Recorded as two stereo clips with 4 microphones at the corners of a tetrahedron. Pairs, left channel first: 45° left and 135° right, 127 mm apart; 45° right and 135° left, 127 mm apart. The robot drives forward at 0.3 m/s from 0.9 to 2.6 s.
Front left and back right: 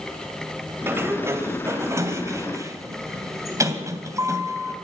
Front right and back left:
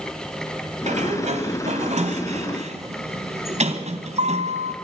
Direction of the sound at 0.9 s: 155° left.